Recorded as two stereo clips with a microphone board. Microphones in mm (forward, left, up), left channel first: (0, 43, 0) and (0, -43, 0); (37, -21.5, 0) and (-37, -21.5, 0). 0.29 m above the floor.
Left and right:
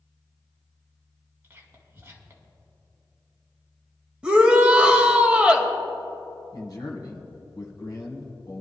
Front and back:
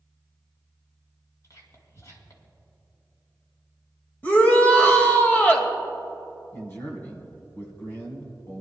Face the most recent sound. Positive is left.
turn(degrees=55)